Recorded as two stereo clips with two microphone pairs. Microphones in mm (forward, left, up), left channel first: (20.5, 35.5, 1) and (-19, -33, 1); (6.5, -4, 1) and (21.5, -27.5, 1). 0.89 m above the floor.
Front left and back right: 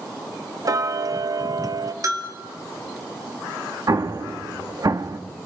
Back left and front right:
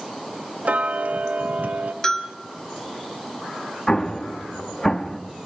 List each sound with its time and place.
0.7 s ticking: 80° right, 0.7 m
2.0 s a bell: 165° right, 3 m
3.9 s an explosion: 160° right, 0.8 m